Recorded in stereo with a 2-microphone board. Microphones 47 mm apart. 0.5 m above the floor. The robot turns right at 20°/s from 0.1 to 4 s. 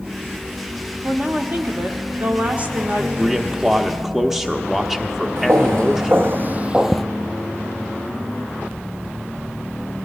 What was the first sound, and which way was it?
A woman speaking, 115° right.